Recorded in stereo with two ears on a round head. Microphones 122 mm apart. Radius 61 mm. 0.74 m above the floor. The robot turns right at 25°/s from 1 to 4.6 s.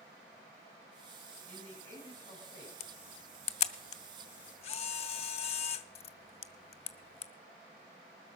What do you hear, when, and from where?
1.5 s a man speaking: 5° left, 5.5 m; by 2.7 s 40° left, 5.5 m
2.8 s a camera shutter: 45° left (ahead or behind), 0.8 m